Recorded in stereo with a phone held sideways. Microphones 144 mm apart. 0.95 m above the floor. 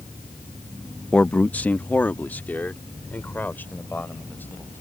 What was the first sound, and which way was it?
A man speaking, 5° left (ahead or behind).